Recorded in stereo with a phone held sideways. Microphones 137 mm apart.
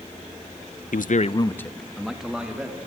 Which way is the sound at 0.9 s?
75° left (ahead or behind).